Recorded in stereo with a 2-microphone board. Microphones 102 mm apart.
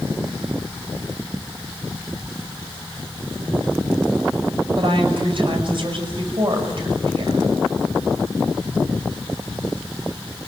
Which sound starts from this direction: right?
A woman speaking, at 4.8 s.